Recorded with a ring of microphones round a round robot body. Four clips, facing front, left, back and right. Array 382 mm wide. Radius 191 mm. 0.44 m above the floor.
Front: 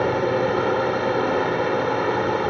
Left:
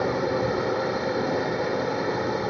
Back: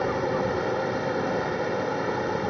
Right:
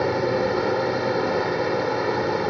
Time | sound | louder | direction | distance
0.0 | a drone | right 3 dB, front 5 dB | 35° right | ?